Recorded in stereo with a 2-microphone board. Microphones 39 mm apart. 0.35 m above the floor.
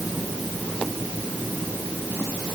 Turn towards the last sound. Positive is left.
No sound to turn to.